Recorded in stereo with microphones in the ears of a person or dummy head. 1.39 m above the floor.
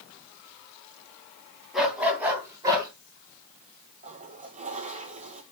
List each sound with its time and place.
1.7 s a dog barking: centre (ahead or behind), 4 m; by 2.9 s 20° right (ahead or behind), 3.5 m
4.0 s a toilet flushing: 40° right (ahead or behind), 1.8 m